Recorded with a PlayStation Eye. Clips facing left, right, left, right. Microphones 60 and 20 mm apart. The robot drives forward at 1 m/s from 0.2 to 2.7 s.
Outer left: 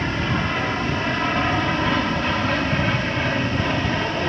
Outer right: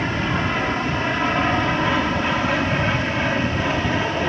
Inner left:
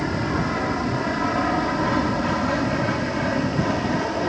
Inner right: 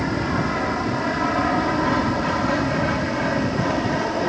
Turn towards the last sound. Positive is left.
turn(degrees=-5)  # may be behind; listen again after turning